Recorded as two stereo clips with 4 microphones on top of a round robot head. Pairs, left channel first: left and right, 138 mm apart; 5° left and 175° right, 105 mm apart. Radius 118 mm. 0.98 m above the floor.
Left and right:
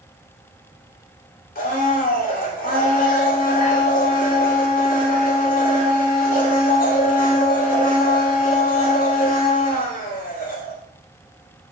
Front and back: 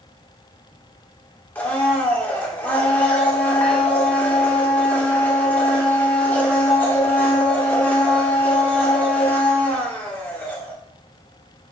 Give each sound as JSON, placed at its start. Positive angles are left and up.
{"t": 1.6, "sound": "a blender", "azimuth_deg": 80, "distance_m": 2.0}